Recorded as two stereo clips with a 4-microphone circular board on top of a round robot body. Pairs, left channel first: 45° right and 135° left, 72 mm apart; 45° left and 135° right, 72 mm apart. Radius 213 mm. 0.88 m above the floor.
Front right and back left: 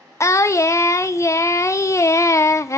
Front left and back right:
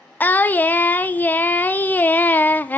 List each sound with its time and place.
0.2 s singing: 10° right, 0.8 m